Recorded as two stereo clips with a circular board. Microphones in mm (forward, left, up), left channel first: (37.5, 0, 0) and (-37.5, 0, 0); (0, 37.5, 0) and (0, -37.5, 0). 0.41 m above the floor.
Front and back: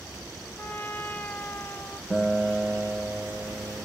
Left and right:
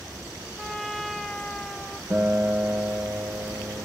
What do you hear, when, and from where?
0.6 s a trumpet: 5° left, 0.6 m
2.1 s a guitar: 110° right, 1.0 m